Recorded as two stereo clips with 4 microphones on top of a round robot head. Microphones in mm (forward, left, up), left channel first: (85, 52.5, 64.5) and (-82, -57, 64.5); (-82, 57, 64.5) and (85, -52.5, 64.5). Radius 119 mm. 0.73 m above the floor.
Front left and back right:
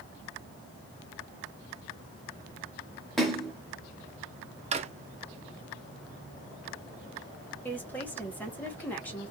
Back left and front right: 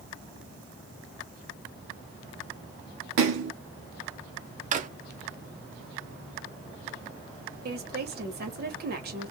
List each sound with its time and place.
3.2 s a splash: 55° right, 0.6 m
4.7 s a drawer: 85° right, 0.6 m
7.7 s a woman speaking: 45° right, 1.3 m